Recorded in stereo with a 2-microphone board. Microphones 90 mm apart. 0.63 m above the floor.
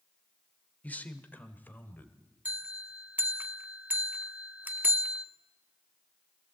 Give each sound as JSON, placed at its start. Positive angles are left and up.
{"t": 0.8, "sound": "a man speaking", "side_deg": 20, "distance_m": 1.6}
{"t": 2.5, "sound": "a bell", "side_deg": -20, "distance_m": 0.9}